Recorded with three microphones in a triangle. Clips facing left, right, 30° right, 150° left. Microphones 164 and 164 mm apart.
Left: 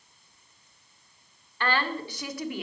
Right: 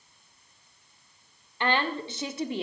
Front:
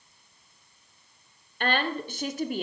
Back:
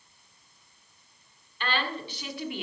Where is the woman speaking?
25° right, 1.7 m; by 2.6 s 45° right, 1.3 m.